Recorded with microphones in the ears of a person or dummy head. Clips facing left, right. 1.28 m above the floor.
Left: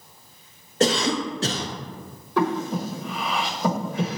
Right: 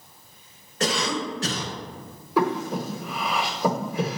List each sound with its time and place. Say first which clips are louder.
0.8 s a cough: left 5 dB; 25° left (ahead or behind), 0.6 m
2.4 s breathing: even; centre (ahead or behind), 1.0 m